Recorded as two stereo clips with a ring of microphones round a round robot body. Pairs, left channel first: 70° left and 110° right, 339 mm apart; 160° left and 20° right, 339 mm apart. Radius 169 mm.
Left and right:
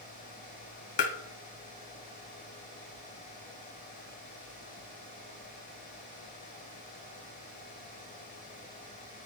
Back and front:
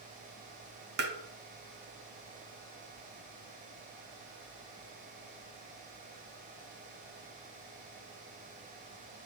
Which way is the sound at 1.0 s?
40° left.